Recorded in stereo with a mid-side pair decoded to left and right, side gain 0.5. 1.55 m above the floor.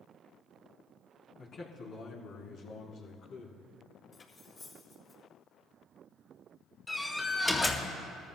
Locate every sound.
1.4 s a man speaking: 55° left, 3 m; by 3.6 s 75° left, 4 m
4.1 s cutlery clinking: 35° left, 4.5 m
6.9 s a door slam: 20° left, 2 m